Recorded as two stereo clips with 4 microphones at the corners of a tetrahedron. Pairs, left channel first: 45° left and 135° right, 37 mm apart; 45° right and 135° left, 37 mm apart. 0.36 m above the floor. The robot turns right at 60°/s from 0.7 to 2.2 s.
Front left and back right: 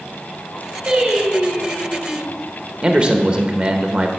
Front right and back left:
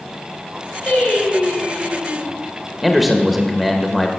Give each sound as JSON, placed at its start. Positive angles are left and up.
{"t": 0.9, "sound": "singing", "azimuth_deg": -85, "distance_m": 2.5}
{"t": 2.8, "sound": "a man speaking", "azimuth_deg": -140, "distance_m": 1.2}